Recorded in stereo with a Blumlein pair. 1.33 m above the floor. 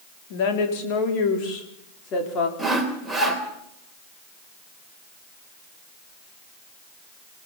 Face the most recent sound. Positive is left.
turn(degrees=0)